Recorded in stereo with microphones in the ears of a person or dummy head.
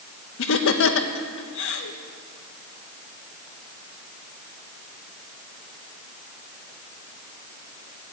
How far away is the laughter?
About 1.2 m.